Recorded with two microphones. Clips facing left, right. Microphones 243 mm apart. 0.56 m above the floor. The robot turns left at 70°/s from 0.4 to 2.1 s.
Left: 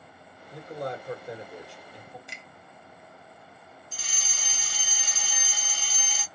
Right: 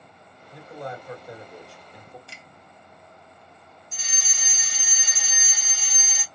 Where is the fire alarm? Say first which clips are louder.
Even; 20° right (ahead or behind), 1.6 m.